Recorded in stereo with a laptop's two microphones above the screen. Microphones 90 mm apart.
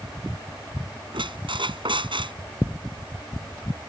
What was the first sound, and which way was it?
A squeak, 65° right (ahead or behind).